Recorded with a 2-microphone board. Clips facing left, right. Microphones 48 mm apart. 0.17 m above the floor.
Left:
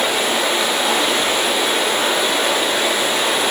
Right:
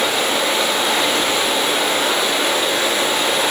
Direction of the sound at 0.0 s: 10° left (ahead or behind).